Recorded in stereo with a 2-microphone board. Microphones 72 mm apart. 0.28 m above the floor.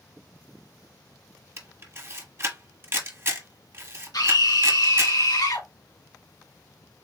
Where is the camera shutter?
35° right (ahead or behind), 1.2 m.